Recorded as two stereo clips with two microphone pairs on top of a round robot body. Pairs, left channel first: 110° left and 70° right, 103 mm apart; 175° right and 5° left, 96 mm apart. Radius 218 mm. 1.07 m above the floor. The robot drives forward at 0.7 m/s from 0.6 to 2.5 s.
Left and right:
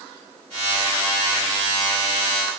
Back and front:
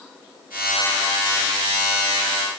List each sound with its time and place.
Only background noise.